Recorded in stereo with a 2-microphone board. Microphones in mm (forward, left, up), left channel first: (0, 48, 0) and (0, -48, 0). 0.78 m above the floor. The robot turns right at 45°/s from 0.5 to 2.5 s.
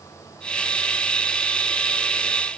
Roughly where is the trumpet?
I don't hear a trumpet.